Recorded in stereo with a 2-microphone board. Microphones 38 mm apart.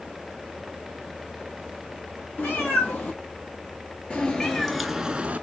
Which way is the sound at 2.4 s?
45° left (ahead or behind).